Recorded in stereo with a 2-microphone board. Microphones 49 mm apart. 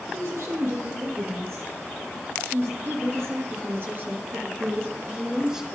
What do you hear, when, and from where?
0.1 s a woman speaking: 75° right (ahead or behind), 5.5 m; by 5.7 s 15° right (ahead or behind), 2 m